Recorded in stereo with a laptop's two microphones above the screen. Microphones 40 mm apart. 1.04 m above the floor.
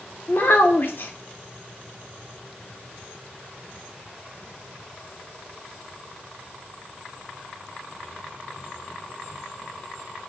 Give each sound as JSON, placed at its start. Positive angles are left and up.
{"t": 0.3, "sound": "a child speaking", "side_deg": 60, "distance_m": 0.6}